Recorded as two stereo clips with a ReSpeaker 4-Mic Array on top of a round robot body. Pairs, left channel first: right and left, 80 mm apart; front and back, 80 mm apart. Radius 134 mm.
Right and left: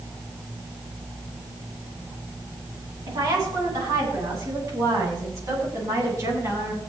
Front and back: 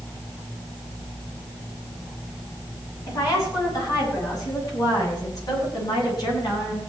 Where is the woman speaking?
45° left, 9 m; by 6.8 s 35° left, 9 m.